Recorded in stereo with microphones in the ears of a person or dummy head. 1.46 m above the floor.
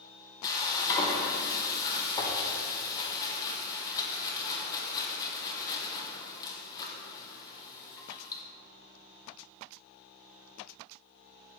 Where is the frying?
20° left (ahead or behind), 0.8 m.